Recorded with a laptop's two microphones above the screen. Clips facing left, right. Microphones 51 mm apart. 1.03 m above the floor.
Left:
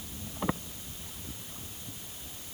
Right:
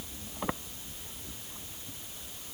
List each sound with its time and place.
Only background noise.